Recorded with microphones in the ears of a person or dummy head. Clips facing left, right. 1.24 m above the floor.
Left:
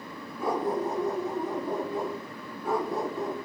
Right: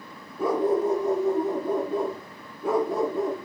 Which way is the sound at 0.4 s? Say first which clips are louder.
Right 6 dB; 70° right (ahead or behind).